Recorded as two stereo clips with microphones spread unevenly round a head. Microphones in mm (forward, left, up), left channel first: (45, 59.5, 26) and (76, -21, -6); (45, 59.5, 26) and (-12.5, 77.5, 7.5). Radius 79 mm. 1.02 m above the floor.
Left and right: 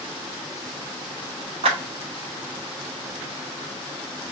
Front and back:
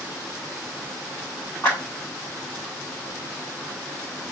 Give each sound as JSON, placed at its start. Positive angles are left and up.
{"t": 1.6, "sound": "a clap", "azimuth_deg": -95, "distance_m": 2.0}